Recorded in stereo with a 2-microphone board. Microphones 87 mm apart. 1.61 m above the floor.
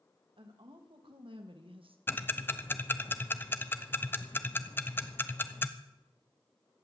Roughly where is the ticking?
Left.